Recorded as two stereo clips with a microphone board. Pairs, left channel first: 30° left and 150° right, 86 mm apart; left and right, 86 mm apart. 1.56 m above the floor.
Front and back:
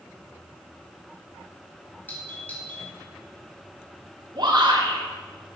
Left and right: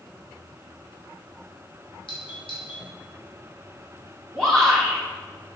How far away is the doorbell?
About 3.5 m.